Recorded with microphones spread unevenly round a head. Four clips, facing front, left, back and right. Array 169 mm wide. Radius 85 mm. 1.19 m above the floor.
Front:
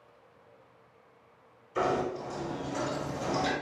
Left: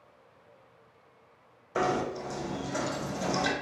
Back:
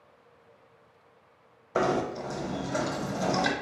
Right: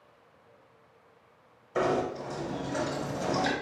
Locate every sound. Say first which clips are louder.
1.8 s knocking: right 1 dB, back 2 dB; 175° left, 0.9 m